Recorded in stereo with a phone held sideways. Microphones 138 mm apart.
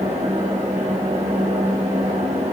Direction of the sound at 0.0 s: 45° right (ahead or behind).